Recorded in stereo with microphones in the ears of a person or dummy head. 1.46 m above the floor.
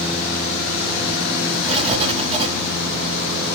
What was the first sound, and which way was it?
Writing, 30° right (ahead or behind).